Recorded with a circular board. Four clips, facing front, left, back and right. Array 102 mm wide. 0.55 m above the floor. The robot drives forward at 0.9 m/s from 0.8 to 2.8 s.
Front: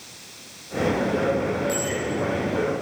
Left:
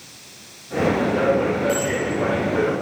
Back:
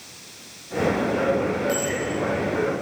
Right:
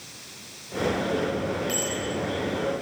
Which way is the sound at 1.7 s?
110° right.